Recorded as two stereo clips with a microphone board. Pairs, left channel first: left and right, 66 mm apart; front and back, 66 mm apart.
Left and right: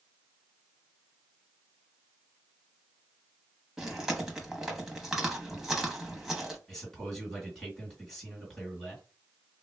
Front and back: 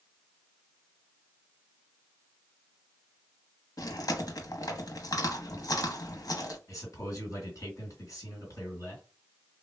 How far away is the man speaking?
About 1.9 m.